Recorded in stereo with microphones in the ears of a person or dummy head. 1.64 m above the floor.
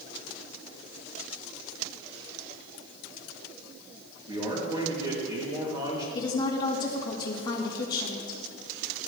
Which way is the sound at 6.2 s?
30° left (ahead or behind).